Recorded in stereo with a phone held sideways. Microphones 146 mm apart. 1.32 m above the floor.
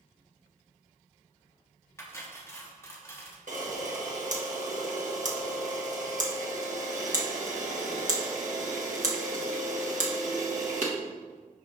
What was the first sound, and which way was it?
Cutlery clinking, 20° left (ahead or behind).